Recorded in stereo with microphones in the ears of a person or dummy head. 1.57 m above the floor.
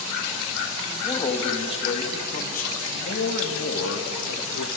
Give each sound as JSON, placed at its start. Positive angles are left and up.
{"t": 0.9, "sound": "a man speaking", "side_deg": 25, "distance_m": 2.5}